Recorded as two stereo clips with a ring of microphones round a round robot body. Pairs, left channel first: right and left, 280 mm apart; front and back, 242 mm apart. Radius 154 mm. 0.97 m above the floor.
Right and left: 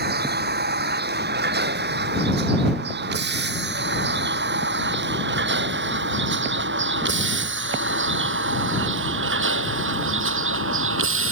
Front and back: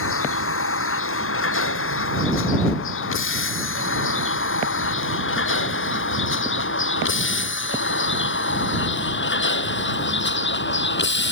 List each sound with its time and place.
0.0 s a vehicle: 35° left; by 11.3 s 45° left